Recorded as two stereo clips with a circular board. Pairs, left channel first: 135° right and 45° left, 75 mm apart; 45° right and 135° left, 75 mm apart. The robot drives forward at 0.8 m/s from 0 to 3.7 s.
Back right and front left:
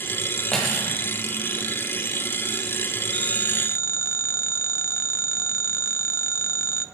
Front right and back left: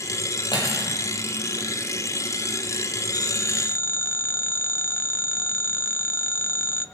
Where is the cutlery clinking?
50° right, 7.5 m; by 1.0 s 55° right, 7.5 m.